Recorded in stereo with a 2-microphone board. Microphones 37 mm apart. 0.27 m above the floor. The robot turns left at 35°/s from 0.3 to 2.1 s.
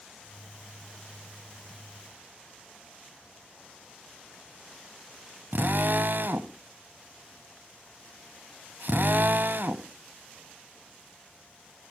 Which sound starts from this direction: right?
A drill, at 5.5 s.